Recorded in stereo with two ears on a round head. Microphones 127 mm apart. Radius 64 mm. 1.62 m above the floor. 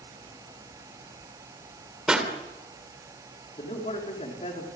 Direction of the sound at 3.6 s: 45° left (ahead or behind).